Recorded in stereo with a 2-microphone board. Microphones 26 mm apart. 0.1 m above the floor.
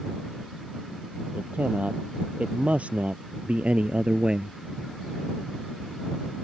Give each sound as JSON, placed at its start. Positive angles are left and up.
{"t": 1.3, "sound": "a man speaking", "side_deg": -65}